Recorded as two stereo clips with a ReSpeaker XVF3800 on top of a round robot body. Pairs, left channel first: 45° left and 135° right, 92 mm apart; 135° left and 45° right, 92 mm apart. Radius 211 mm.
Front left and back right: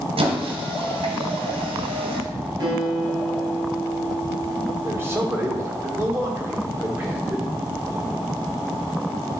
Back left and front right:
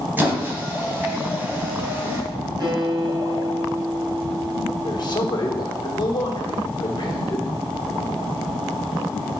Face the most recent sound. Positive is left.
turn(degrees=165)